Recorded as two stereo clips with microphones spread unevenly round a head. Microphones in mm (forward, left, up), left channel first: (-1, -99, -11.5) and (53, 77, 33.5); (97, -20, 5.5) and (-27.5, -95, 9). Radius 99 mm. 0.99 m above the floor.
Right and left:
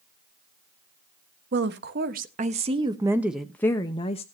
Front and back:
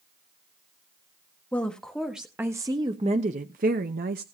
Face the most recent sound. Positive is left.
turn(degrees=-155)